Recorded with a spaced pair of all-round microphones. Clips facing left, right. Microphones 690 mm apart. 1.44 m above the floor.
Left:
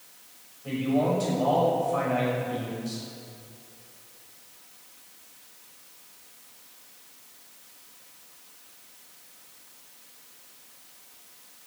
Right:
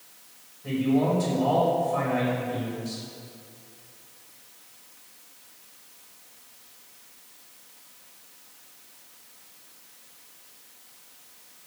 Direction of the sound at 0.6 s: 50° right (ahead or behind).